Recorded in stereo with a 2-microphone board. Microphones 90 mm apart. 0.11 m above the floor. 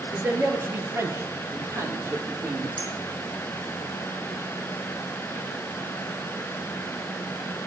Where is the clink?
75° right (ahead or behind), 3 m.